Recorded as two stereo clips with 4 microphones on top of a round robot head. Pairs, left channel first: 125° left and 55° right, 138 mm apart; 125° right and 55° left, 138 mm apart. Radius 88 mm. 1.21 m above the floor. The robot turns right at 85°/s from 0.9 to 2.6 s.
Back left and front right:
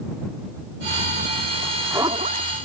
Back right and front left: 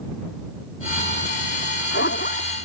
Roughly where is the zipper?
Behind right.